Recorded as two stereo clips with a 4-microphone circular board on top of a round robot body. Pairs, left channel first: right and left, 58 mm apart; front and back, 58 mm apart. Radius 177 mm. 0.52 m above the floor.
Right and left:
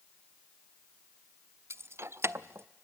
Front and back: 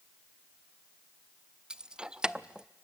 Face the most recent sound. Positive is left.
turn(degrees=105)